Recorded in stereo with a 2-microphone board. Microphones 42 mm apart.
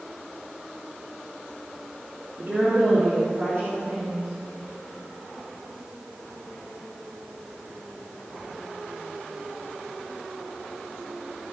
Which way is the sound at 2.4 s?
50° right (ahead or behind).